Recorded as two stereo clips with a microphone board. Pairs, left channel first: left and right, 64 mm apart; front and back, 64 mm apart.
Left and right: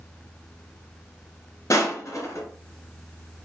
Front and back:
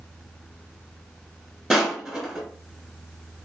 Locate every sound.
1.7 s crushing: 95° left, 1.3 m